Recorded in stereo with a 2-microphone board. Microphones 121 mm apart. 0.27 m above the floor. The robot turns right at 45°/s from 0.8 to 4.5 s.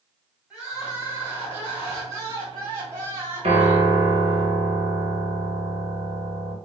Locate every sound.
0.5 s crying: 10° right (ahead or behind), 1.5 m; by 4.0 s 5° right (ahead or behind), 1.5 m
3.4 s a piano: 70° right, 1.4 m; by 6.6 s 20° right, 1.4 m